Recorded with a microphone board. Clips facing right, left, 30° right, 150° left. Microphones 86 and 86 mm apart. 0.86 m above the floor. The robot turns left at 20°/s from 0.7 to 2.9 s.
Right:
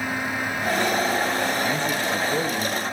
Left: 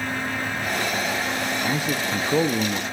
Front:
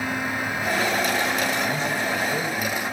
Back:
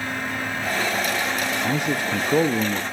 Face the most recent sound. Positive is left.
turn(degrees=145)